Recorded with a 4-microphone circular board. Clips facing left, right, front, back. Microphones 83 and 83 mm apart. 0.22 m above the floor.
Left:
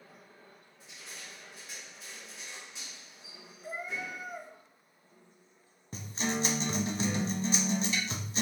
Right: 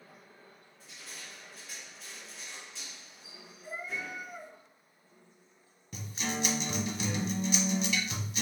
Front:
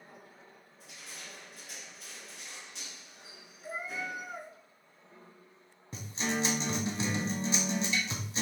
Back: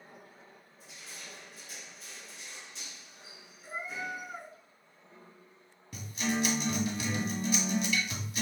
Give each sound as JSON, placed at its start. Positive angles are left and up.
{"t": 0.8, "sound": "crushing", "azimuth_deg": 20, "distance_m": 1.5}
{"t": 3.6, "sound": "a cat meowing", "azimuth_deg": 75, "distance_m": 1.3}
{"t": 5.9, "sound": "a guitar", "azimuth_deg": 50, "distance_m": 0.6}